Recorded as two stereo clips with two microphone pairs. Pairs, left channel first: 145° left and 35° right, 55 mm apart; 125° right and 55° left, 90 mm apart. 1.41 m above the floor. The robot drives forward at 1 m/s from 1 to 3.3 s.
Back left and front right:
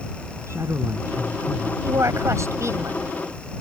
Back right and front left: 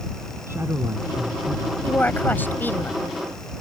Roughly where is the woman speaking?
Ahead right.